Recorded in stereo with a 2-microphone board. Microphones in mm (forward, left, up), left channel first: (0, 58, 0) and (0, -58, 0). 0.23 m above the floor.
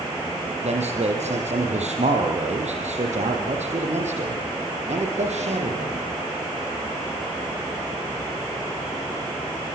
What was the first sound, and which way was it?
A man speaking, 75° right (ahead or behind).